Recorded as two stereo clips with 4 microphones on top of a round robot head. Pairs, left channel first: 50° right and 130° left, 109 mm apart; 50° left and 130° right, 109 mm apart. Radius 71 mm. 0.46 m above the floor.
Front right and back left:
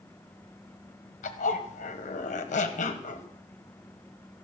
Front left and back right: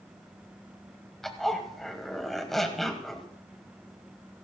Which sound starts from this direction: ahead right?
A zipper, at 1.2 s.